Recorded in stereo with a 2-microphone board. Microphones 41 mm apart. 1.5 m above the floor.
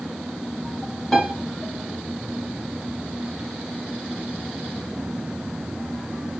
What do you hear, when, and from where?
1.1 s a piano: 10° left (ahead or behind), 3 m